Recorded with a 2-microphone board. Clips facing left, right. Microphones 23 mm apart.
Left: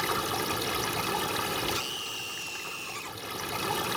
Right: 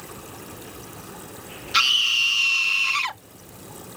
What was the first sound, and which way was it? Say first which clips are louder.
Running water: left 11 dB; 70° left (ahead or behind).